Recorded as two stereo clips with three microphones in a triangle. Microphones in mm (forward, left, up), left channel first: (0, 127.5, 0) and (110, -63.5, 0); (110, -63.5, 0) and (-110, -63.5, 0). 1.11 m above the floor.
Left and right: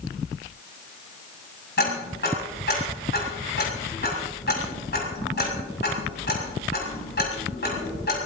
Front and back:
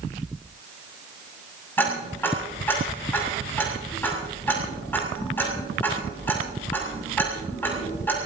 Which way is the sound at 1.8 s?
80° left.